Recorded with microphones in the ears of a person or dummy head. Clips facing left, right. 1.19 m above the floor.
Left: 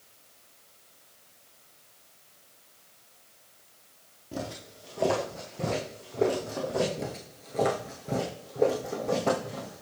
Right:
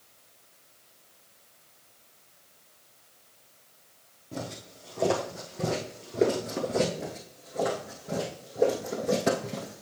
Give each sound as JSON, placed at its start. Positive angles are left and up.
{"t": 4.3, "sound": "footsteps", "side_deg": 5, "distance_m": 1.6}
{"t": 7.0, "sound": "footsteps", "side_deg": 35, "distance_m": 1.4}